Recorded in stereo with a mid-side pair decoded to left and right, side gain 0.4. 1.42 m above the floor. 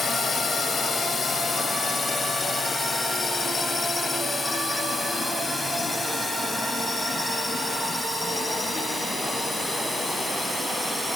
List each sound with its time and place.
0.0 s a drone: 50° left; by 11.2 s 20° left